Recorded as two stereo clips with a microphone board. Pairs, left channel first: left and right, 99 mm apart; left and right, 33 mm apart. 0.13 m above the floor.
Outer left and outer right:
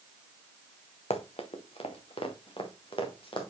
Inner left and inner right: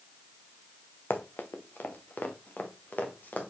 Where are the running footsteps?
80° left, 1.2 m; by 3.5 s 60° left (ahead or behind), 2.5 m.